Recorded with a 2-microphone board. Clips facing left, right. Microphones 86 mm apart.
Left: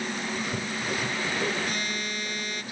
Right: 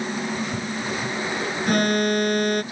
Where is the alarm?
60° right (ahead or behind).